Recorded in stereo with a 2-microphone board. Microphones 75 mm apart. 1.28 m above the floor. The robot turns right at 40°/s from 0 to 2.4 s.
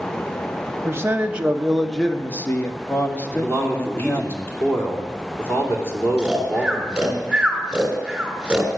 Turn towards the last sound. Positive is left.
turn(degrees=-5)  # may be behind; listen again after turning